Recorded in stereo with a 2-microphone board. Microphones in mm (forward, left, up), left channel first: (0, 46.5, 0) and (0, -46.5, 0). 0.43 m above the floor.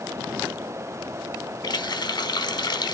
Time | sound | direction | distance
1.6 | a running tap | 45° left (ahead or behind) | 0.9 m